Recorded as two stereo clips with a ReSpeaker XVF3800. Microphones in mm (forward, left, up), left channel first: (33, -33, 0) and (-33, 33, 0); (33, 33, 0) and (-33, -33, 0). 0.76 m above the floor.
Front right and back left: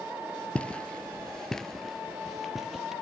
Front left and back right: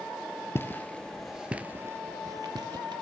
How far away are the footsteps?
About 0.8 m.